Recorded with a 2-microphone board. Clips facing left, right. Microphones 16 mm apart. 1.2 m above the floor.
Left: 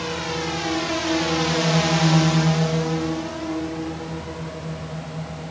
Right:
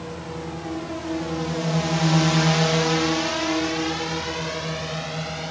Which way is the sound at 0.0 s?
75° left (ahead or behind).